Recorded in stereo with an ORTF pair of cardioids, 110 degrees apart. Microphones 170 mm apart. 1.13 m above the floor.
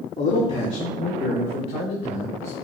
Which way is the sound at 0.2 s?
40° left.